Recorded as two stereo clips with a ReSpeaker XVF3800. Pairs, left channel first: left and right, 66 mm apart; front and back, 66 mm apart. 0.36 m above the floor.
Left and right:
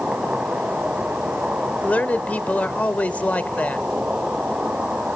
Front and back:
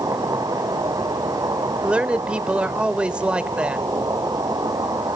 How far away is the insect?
About 3 m.